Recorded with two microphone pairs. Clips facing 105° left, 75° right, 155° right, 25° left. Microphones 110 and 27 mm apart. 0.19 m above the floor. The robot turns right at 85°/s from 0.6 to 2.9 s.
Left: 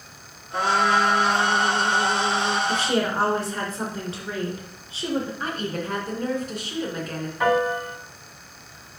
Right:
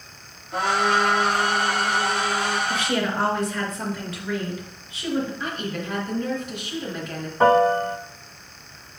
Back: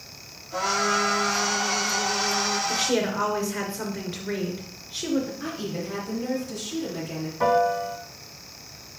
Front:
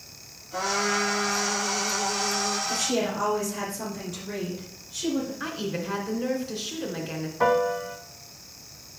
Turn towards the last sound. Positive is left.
turn(degrees=-45)